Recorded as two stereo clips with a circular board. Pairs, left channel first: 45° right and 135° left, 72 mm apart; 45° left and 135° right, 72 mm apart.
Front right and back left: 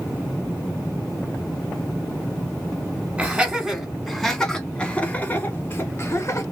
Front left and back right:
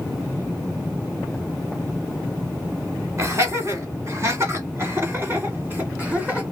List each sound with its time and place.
3.2 s laughter: 160° right, 1.8 m; by 6.4 s 75° right, 2.0 m